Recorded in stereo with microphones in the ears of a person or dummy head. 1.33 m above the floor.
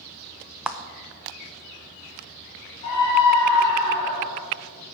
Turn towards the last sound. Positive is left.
turn(degrees=30)  # may be behind; listen again after turning